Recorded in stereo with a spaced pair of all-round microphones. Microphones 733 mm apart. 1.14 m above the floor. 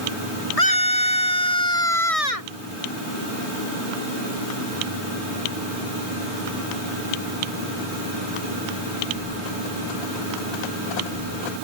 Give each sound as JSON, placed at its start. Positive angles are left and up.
{"t": 0.6, "sound": "a scream", "side_deg": 50}